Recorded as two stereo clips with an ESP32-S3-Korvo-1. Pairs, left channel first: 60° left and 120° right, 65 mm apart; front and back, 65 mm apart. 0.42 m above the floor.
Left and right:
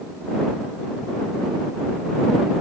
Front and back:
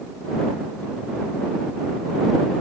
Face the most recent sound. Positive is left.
No sound to turn to.